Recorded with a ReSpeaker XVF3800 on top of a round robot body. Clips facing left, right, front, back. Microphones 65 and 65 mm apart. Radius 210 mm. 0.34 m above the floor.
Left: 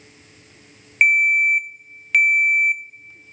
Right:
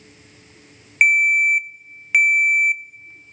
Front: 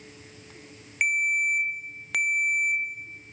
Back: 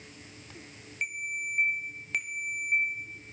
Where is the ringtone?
10° right, 0.6 m.